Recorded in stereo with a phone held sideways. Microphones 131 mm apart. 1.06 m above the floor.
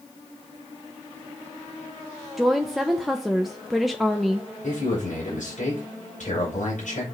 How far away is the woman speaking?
About 0.9 m.